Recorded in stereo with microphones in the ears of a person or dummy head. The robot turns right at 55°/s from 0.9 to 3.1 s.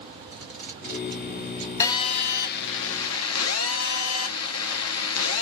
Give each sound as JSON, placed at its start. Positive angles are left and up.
{"t": 0.3, "sound": "tape being pulled", "side_deg": -45, "distance_m": 1.3}
{"t": 1.8, "sound": "a phone buzzing", "azimuth_deg": 20, "distance_m": 0.7}